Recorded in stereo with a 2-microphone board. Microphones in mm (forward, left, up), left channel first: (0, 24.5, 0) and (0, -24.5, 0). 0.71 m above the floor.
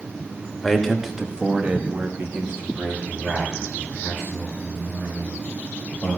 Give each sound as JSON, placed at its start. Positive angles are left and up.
{"t": 0.6, "sound": "a man speaking", "side_deg": 5, "distance_m": 1.3}